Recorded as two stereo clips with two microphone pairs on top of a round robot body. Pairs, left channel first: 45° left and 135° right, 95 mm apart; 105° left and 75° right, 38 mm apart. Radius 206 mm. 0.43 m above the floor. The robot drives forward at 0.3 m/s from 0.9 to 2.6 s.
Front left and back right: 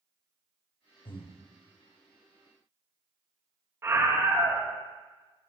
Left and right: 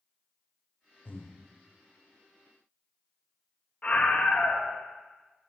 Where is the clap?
No clap in this recording.